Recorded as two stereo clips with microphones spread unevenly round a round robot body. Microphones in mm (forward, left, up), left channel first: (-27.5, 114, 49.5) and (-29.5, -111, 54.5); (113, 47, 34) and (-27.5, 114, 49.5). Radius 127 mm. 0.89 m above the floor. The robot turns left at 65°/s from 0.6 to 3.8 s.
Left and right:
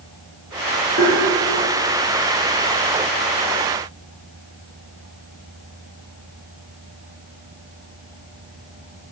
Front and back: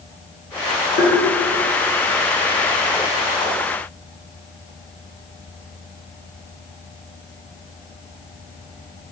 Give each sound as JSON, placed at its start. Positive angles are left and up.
{"t": 1.0, "sound": "tapping", "azimuth_deg": -40, "distance_m": 4.0}